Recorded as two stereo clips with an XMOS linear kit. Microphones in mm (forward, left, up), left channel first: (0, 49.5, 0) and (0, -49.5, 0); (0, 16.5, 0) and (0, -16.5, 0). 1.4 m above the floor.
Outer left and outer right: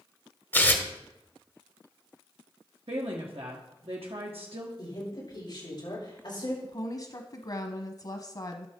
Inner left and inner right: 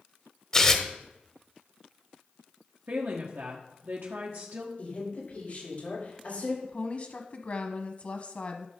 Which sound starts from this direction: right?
A woman speaking, at 2.9 s.